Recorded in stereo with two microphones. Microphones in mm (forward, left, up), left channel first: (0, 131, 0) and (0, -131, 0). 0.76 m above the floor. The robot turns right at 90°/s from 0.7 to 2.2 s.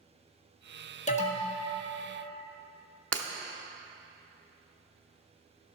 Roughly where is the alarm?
Left.